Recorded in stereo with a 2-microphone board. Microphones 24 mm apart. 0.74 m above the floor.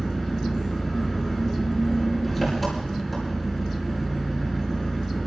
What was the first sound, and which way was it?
An engine running, centre (ahead or behind).